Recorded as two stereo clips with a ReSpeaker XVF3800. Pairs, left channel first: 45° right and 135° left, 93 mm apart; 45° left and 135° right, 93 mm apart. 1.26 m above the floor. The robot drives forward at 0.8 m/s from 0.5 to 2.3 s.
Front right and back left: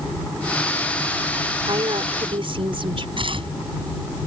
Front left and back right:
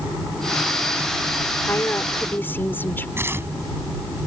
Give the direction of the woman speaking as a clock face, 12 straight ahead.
8 o'clock.